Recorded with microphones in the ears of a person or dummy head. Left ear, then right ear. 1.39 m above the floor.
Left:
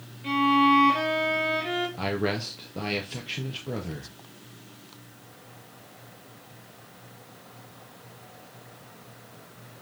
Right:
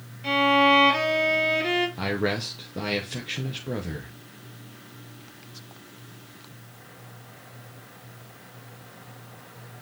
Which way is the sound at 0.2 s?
25° right (ahead or behind).